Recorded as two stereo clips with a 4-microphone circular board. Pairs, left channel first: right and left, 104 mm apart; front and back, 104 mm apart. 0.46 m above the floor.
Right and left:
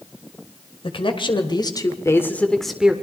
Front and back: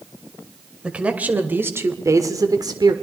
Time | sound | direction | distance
0.8 | a man speaking | 105° right | 2.5 m